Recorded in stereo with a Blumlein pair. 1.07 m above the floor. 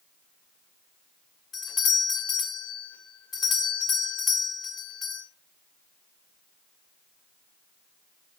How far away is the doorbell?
About 2.5 m.